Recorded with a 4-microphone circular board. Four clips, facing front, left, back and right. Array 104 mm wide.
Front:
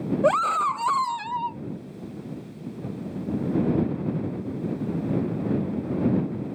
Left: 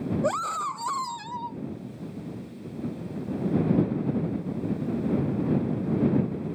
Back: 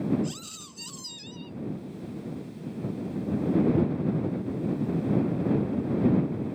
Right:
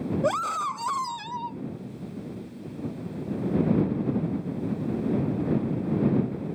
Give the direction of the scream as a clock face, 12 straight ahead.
12 o'clock.